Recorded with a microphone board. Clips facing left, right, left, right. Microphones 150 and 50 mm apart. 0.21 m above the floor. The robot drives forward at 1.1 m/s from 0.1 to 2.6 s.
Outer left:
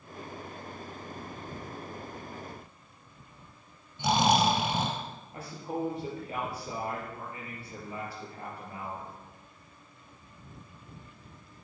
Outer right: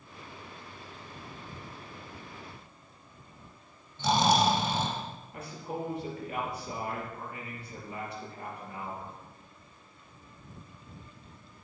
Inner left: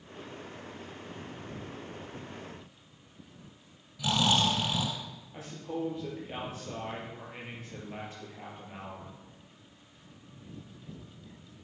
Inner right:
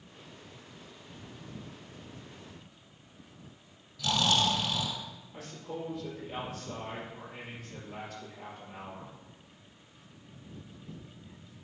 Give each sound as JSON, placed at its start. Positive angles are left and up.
{"t": 4.0, "sound": "snoring", "side_deg": 20, "distance_m": 2.5}
{"t": 5.3, "sound": "a man speaking", "side_deg": 30, "distance_m": 5.5}